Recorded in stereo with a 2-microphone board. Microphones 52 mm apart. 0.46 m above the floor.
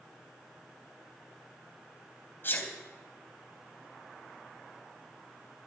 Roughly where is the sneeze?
Left.